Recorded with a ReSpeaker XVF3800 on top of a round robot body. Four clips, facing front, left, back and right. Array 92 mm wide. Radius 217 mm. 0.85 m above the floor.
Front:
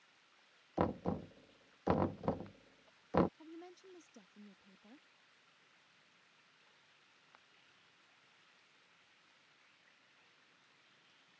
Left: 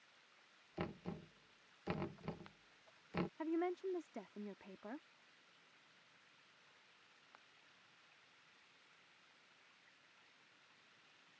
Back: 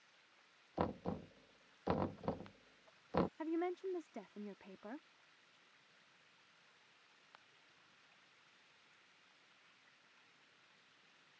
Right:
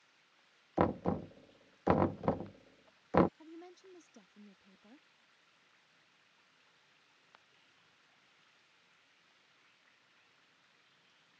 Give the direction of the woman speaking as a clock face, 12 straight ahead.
7 o'clock.